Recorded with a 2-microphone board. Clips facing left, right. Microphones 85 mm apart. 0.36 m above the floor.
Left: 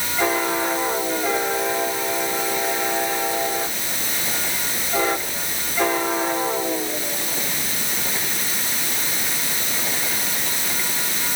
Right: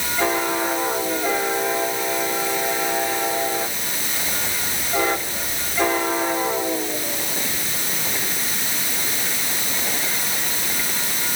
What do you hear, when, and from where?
Only background noise.